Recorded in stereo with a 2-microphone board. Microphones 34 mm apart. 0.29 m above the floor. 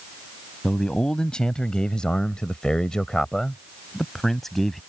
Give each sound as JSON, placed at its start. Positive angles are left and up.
{"t": 0.6, "sound": "a man speaking", "side_deg": 25}